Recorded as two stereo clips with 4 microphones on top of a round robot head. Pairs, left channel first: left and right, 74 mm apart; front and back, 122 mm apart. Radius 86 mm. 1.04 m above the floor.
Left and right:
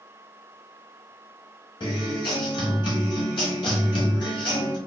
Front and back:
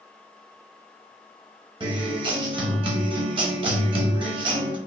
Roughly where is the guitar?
Behind left.